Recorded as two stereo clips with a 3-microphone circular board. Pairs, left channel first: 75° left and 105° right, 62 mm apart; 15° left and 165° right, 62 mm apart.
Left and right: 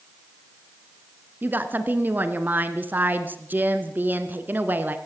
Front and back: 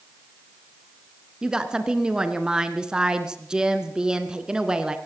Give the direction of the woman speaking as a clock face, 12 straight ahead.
3 o'clock.